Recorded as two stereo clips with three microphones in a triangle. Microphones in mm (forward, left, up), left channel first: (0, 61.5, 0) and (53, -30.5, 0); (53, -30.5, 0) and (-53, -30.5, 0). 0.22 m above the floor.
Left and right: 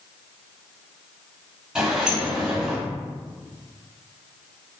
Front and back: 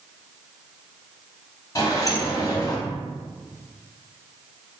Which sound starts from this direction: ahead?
A sliding door, at 1.8 s.